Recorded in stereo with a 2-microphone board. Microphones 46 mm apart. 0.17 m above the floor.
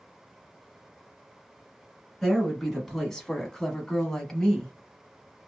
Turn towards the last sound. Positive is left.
turn(degrees=15)  # may be behind; listen again after turning